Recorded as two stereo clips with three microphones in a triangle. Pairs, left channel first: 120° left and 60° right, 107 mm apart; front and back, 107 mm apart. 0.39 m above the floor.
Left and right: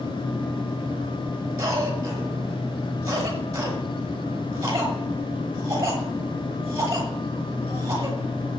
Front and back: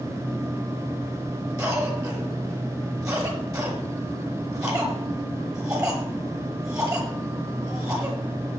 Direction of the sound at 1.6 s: 120° right.